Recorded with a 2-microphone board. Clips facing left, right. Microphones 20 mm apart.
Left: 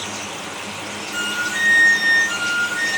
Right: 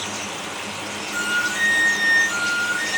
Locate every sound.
1.1 s a flute: 55° left (ahead or behind), 2.5 m